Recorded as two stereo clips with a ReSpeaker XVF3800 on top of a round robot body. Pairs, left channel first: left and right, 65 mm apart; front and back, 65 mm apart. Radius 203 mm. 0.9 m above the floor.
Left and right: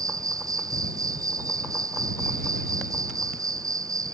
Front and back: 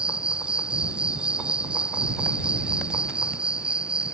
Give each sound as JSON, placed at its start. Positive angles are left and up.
{"t": 0.0, "sound": "an insect", "azimuth_deg": -105}